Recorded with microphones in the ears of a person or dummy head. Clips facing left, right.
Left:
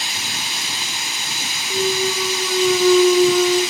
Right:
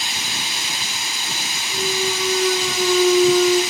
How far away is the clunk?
About 1.1 m.